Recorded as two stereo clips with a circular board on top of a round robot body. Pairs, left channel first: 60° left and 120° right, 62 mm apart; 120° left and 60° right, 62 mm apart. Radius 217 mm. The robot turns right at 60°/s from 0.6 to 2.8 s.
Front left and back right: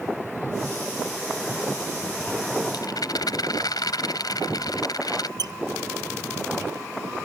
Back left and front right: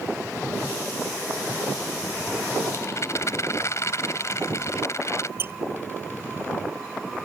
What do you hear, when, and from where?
2.7 s a rattle: 70° left; by 5.3 s 75° left
5.4 s a squeak: 115° right